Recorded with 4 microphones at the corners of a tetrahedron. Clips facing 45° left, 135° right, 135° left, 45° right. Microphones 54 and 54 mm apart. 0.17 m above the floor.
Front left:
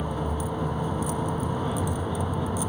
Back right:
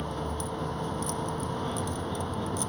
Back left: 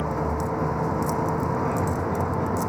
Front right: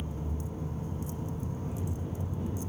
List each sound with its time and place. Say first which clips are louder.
0.0 s a vehicle: front left 4 dB, back left 13 dB; 125° left